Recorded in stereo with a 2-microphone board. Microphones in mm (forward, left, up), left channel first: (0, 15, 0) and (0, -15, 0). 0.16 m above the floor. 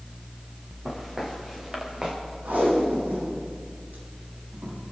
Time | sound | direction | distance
0.8 | footsteps | 15° right (ahead or behind) | 4.5 m
2.5 | tape being pulled | 80° right | 6.5 m